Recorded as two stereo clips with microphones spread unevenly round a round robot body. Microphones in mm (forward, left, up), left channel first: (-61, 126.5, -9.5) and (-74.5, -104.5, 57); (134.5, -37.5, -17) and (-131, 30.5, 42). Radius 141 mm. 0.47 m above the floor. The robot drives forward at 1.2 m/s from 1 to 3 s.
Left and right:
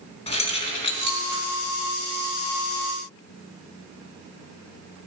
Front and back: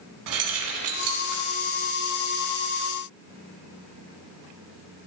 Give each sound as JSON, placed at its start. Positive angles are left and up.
{"t": 0.3, "sound": "keys jangling", "azimuth_deg": 150, "distance_m": 3.0}